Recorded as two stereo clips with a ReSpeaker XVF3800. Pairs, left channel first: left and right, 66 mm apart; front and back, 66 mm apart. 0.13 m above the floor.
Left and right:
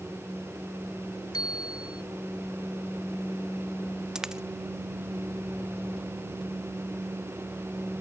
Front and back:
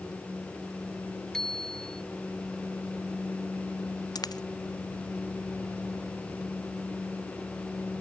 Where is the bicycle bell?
85° left.